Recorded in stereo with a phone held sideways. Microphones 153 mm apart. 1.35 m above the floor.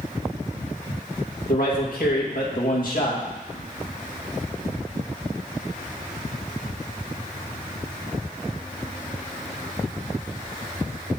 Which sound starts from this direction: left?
A man speaking, at 1.5 s.